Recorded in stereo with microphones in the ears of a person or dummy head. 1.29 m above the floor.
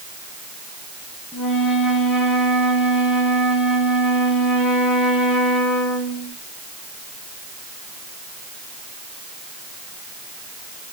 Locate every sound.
1.3 s a flute: centre (ahead or behind), 1.5 m